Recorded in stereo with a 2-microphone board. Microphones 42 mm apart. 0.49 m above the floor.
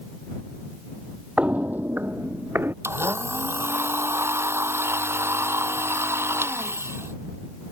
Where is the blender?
80° right.